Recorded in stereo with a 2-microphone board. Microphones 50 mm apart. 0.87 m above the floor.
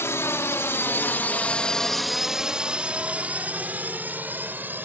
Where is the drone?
60° left (ahead or behind); by 4.9 s 40° right (ahead or behind).